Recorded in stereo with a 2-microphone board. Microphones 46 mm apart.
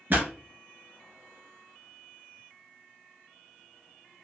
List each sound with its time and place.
0.1 s a pop: 40° right (ahead or behind), 1.2 m